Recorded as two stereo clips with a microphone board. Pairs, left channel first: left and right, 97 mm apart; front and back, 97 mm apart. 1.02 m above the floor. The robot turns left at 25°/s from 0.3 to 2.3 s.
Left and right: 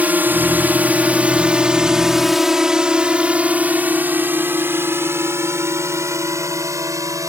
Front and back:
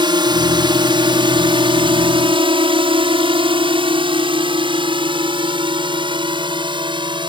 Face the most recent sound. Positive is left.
turn(degrees=-145)